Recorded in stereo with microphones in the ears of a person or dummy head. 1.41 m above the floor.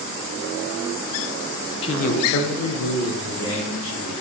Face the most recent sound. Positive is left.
turn(degrees=55)  # may be behind; listen again after turning